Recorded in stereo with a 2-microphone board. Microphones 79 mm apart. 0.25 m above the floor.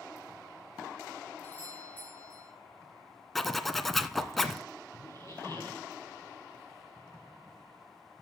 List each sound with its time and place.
1.4 s a doorbell: 20° left (ahead or behind), 6.5 m
3.4 s a zipper: 5° left (ahead or behind), 1.0 m
5.0 s a squeak: 40° left (ahead or behind), 4.5 m